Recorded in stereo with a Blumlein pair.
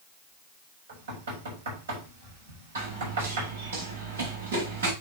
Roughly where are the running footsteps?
Ahead right.